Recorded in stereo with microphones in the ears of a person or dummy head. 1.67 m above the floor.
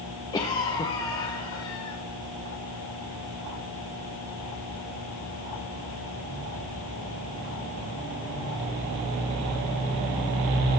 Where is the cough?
25° left (ahead or behind), 1.9 m.